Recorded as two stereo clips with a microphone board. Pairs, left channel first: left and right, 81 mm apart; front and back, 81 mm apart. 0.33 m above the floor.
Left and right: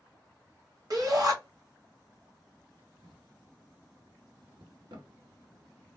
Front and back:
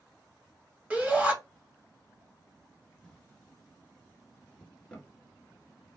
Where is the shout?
110° right, 1.6 m.